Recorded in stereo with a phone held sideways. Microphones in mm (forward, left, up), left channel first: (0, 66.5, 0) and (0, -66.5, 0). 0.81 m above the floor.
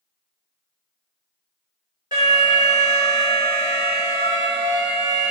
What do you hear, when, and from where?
2.1 s an alarm: 35° right (ahead or behind), 1.7 m